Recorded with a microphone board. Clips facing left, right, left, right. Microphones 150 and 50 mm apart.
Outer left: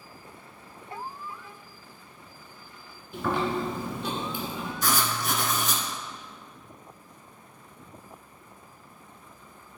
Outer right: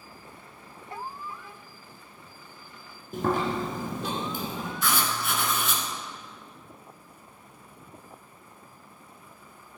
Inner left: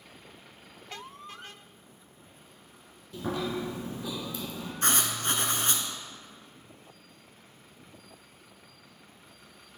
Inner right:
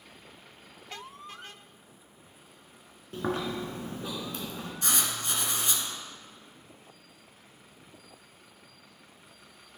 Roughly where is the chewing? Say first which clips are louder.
Outer right 1 dB, inner right 1 dB; right.